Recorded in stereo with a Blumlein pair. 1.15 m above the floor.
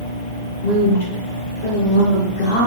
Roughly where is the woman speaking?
Ahead left.